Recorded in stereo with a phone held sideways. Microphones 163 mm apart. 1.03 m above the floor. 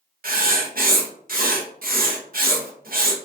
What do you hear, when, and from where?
0.2 s writing: 65° right (ahead or behind), 0.7 m